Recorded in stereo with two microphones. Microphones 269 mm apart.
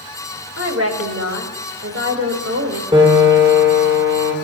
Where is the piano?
20° right (ahead or behind), 2.5 m.